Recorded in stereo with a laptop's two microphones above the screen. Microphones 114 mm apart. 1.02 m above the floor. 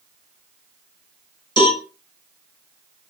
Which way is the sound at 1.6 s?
45° left (ahead or behind).